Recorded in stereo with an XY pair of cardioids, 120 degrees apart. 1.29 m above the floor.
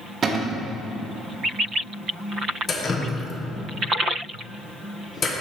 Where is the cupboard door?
45° right, 0.7 m.